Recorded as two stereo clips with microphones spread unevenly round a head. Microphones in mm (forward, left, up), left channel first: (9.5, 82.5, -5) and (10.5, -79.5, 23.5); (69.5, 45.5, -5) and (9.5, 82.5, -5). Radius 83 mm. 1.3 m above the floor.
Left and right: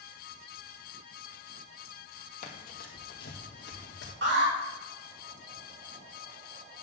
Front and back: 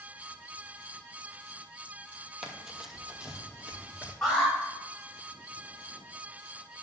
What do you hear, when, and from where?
2.4 s running footsteps: 65° left, 1.6 m; by 4.1 s 85° left, 2.5 m
4.2 s an alarm: 120° right, 3 m